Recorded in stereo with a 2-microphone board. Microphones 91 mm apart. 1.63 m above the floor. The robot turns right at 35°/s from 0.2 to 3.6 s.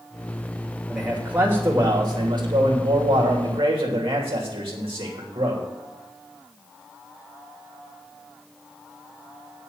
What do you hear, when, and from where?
0.9 s a man speaking: 175° right, 2.5 m; by 5.6 s 80° right, 2.5 m